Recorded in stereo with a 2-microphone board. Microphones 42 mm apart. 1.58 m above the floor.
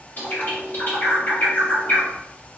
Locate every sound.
0.2 s a bird: 45° left (ahead or behind), 1.1 m